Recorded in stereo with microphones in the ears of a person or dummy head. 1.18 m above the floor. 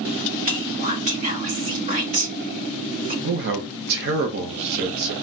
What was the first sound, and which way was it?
Whispering, 40° right (ahead or behind).